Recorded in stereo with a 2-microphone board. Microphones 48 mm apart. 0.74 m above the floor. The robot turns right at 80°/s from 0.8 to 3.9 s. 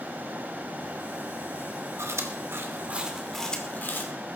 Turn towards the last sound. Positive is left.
turn(degrees=45)  # may be behind; listen again after turning